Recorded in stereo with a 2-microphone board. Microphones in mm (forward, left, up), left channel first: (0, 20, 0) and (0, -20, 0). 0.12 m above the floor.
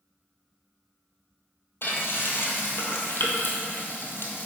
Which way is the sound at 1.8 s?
65° left (ahead or behind).